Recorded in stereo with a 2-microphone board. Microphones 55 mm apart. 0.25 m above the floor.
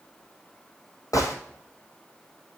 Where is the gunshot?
80° left, 2 m.